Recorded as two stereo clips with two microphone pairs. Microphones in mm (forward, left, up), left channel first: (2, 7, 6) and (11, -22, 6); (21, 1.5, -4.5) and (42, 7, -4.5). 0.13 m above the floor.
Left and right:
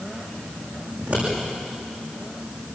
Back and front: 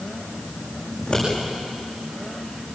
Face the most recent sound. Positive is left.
turn(degrees=-120)